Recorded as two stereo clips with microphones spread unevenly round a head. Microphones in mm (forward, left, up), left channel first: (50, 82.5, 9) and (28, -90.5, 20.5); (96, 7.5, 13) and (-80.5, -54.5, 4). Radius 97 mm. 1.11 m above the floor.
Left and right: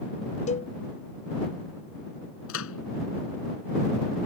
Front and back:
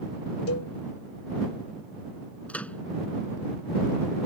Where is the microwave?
105° left.